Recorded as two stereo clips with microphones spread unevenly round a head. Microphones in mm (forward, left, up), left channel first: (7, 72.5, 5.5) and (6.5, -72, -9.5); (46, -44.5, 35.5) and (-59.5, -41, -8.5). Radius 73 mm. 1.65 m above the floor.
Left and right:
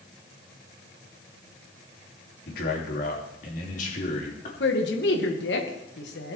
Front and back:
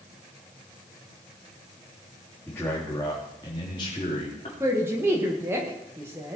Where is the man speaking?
70° left, 3 m; by 4.5 s 50° left, 3.5 m.